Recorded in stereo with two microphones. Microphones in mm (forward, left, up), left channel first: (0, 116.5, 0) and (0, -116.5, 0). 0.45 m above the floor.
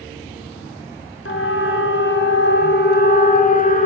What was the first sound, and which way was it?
A siren, 65° left (ahead or behind).